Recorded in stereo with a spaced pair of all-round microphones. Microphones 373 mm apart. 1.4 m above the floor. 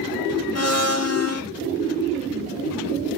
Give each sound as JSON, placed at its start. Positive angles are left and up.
{"t": 0.6, "sound": "a blender", "side_deg": 40, "distance_m": 1.2}